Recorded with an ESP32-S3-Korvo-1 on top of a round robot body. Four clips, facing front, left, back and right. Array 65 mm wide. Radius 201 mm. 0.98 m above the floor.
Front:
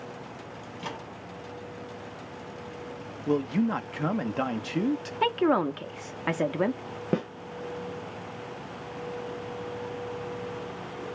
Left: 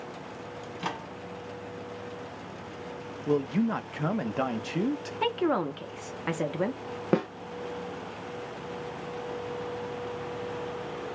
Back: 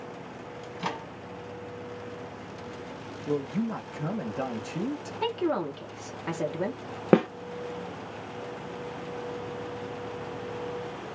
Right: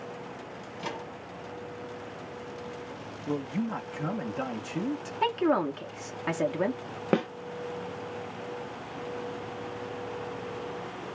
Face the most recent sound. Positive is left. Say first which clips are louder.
# even, back 8 dB
turn(degrees=175)